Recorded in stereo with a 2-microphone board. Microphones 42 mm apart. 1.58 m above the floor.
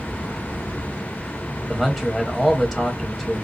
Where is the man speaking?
5° right (ahead or behind), 0.9 m.